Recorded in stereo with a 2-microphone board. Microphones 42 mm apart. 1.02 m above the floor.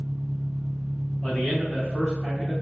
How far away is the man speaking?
About 1.9 m.